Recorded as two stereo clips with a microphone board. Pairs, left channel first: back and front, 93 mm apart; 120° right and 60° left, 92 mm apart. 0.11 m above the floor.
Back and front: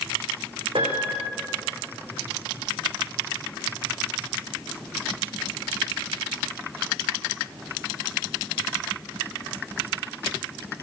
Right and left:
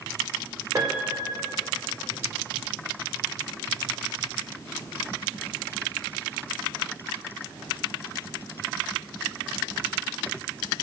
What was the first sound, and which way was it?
A piano, 10° left.